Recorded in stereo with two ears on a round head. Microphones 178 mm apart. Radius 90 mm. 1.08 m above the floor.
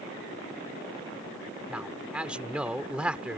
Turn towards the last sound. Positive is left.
turn(degrees=-5)  # may be behind; listen again after turning